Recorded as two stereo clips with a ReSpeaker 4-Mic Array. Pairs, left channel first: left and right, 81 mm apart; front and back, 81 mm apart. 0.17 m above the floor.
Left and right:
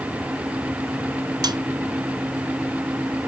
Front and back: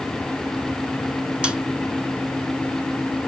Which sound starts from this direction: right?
A snare drum, at 1.4 s.